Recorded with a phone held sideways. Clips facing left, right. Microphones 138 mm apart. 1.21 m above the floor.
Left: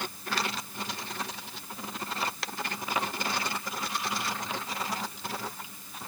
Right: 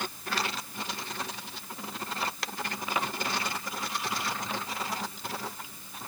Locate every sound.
Only background noise.